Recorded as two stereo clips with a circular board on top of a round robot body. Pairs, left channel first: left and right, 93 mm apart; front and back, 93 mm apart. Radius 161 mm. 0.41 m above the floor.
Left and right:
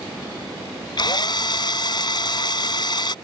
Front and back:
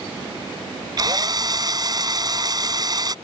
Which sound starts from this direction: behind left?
A drill, at 1.0 s.